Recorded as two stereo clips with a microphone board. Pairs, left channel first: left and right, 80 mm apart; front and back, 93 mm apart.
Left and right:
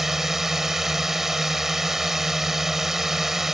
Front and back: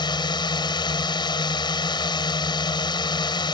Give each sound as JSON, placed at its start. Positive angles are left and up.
{"t": 0.0, "sound": "a drone", "azimuth_deg": -5}